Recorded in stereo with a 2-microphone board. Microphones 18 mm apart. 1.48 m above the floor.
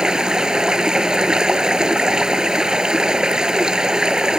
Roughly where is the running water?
Right.